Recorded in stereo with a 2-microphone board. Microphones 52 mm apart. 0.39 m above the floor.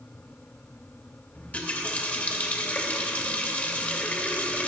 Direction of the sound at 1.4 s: 30° left (ahead or behind).